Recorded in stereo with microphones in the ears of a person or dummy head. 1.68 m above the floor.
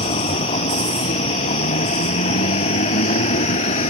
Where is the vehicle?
35° left (ahead or behind); by 3.9 s 40° left (ahead or behind).